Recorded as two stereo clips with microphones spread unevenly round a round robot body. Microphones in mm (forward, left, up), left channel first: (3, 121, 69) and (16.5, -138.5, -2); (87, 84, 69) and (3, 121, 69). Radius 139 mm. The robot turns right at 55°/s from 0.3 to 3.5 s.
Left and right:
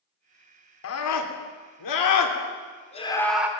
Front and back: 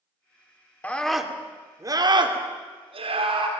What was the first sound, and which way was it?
A scream, 50° left.